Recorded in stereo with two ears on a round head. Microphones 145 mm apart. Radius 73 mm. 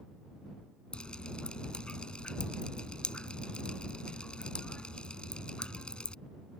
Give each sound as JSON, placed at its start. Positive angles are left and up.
{"t": 0.9, "sound": "dripping", "side_deg": 5}